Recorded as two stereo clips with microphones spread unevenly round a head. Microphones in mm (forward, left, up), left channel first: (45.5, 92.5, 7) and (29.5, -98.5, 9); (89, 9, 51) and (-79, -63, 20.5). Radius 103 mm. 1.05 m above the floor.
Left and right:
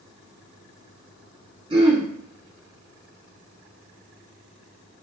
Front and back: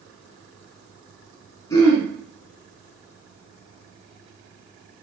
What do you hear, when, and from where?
1.7 s throat clearing: 40° right, 1.4 m